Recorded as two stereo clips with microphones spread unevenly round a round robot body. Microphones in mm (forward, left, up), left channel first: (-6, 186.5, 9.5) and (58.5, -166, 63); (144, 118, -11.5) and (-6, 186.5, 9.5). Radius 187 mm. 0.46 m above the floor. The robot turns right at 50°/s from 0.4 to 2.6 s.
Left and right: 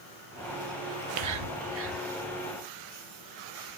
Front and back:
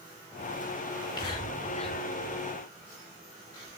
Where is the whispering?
80° right, 1.2 m; by 2.0 s 20° right, 1.2 m.